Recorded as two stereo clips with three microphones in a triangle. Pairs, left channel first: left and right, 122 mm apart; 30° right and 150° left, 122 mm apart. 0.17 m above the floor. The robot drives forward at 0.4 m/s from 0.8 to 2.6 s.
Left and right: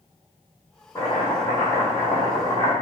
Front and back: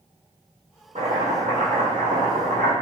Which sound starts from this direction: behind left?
Chopping, at 0.9 s.